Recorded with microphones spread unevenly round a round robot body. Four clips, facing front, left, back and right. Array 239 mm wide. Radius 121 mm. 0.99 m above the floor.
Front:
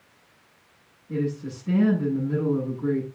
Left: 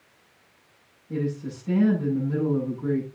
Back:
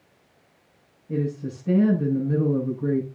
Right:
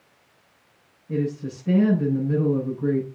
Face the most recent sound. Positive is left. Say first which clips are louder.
# right 3 dB, back 1 dB
turn(degrees=-130)